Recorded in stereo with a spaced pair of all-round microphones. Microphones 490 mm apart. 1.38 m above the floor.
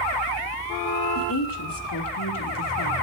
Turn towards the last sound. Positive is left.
turn(degrees=40)  # may be behind; listen again after turning